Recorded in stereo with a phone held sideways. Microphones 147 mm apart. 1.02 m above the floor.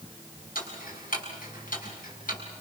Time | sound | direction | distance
0.6 | ticking | 85° left | 6 m